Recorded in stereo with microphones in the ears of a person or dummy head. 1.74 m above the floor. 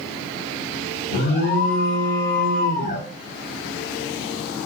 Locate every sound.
1.1 s an alarm: 60° left (ahead or behind), 1.1 m